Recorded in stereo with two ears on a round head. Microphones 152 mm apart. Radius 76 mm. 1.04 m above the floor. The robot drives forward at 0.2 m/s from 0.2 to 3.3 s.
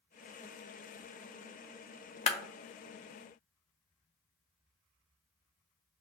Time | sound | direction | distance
2.3 | a clap | 35° left (ahead or behind) | 0.5 m